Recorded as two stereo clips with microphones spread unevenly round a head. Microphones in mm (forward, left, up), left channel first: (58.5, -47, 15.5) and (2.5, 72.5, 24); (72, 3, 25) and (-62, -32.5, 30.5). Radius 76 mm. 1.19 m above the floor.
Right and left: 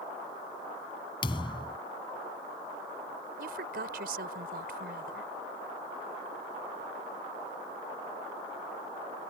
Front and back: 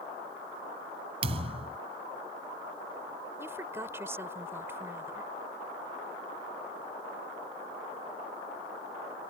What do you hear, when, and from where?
1.2 s a thud: 125° right
3.4 s a woman speaking: 120° left